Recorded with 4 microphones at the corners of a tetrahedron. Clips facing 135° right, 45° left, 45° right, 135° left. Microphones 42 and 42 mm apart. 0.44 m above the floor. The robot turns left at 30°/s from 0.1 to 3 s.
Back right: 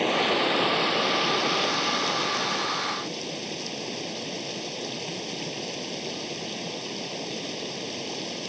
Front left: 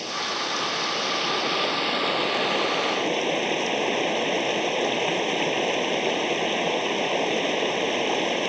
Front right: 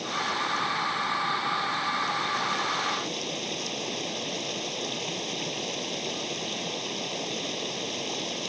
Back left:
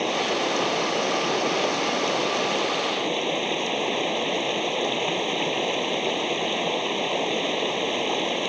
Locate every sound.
0.0 s running water: 170° left; by 8.5 s 85° left